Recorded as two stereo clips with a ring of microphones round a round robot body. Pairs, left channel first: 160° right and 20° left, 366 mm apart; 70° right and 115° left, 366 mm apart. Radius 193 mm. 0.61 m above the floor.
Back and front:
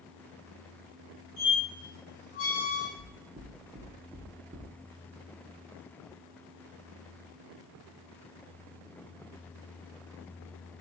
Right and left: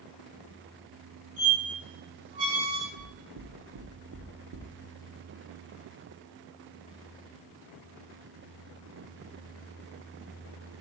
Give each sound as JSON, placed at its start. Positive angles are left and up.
{"t": 1.4, "sound": "a squeak", "azimuth_deg": 155, "distance_m": 3.5}
{"t": 3.0, "sound": "knocking", "azimuth_deg": 90, "distance_m": 1.1}